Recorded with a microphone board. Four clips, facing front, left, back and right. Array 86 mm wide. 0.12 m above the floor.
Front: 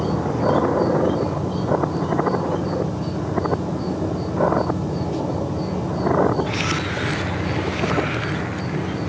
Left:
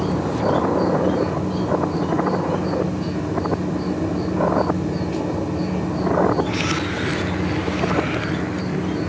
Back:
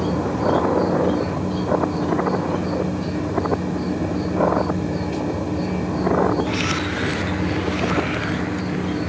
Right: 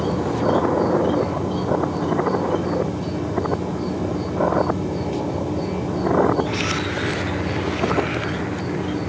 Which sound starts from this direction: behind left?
An insect, at 0.0 s.